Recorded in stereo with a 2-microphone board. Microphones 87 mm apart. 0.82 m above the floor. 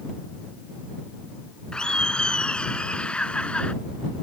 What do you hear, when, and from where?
1.7 s laughter: 10° left (ahead or behind)